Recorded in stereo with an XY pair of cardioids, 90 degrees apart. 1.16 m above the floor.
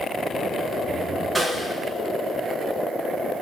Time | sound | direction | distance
1.4 | a snare drum | 15° right | 4.5 m